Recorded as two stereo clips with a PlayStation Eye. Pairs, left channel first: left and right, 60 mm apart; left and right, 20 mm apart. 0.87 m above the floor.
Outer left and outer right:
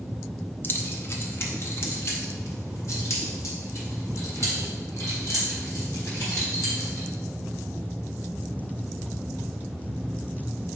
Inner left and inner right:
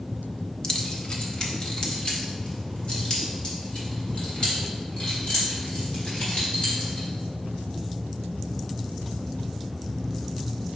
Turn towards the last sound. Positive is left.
turn(degrees=55)  # may be behind; listen again after turning